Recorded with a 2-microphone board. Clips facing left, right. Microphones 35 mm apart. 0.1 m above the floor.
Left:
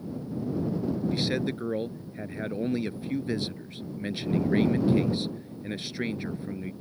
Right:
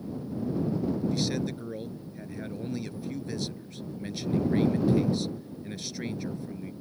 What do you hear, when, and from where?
1.1 s a man speaking: 25° left (ahead or behind)